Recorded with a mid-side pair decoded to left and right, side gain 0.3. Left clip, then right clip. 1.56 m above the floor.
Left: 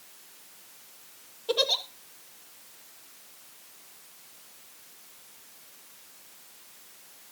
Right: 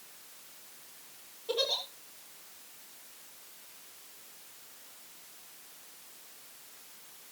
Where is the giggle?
65° left, 2.5 m.